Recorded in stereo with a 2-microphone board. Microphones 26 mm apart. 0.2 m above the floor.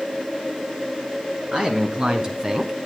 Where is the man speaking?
40° right (ahead or behind), 2 m; by 2.7 s 25° right (ahead or behind), 1.1 m.